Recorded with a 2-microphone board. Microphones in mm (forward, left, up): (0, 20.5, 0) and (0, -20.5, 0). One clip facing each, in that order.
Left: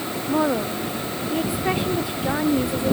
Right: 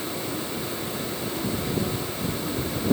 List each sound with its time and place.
0.3 s a woman speaking: 75° left (ahead or behind); by 2.9 s 80° left